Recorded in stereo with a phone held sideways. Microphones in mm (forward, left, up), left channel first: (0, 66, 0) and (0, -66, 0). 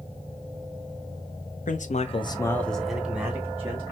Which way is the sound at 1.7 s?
75° left (ahead or behind).